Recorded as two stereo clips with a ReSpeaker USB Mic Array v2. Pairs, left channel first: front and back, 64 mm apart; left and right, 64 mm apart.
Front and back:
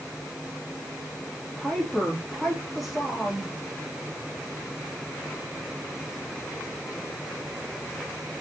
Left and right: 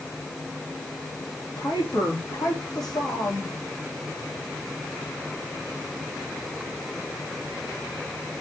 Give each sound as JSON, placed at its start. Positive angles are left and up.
{"t": 1.6, "sound": "a woman speaking", "azimuth_deg": 85, "distance_m": 3.0}